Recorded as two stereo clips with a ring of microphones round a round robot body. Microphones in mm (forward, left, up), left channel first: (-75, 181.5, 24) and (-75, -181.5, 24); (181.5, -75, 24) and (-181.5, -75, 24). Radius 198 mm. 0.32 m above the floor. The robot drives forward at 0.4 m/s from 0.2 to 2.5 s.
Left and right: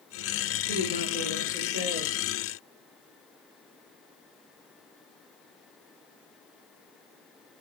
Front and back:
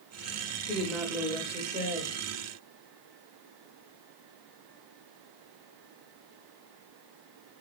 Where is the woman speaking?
80° right, 1.0 m; by 2.2 s 135° right, 1.1 m.